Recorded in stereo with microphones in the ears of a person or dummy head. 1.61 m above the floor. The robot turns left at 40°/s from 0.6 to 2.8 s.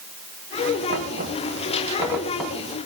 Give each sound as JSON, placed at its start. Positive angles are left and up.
{"t": 0.9, "sound": "knocking", "side_deg": -70, "distance_m": 4.0}